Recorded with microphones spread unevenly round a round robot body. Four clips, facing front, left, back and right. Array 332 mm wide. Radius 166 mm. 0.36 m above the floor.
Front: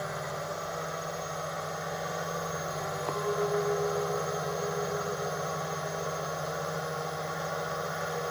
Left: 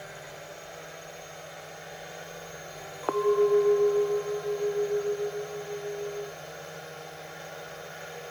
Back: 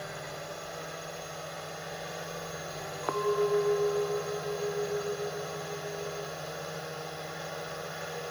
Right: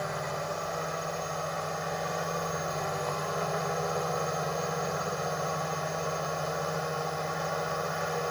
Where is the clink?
100° left.